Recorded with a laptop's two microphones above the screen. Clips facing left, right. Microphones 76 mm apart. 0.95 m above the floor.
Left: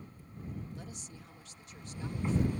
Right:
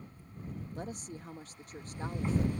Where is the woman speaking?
45° right (ahead or behind).